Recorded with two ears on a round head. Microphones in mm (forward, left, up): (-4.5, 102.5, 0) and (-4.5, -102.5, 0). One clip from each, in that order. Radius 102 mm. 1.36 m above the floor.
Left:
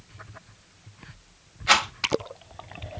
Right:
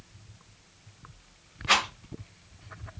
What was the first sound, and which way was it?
A rattle, 30° left (ahead or behind).